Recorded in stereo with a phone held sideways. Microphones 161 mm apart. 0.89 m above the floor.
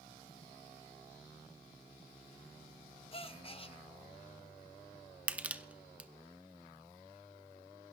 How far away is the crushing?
About 0.8 m.